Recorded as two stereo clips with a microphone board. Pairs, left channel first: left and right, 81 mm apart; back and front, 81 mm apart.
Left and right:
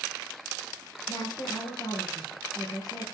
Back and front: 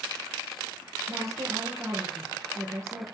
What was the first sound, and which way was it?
A woman speaking, 55° left.